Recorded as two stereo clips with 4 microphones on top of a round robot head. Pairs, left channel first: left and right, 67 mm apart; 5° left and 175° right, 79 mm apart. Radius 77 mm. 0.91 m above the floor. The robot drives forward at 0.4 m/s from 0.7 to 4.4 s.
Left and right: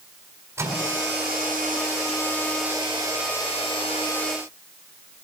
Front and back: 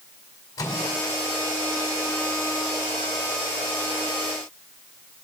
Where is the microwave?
40° right, 3.5 m.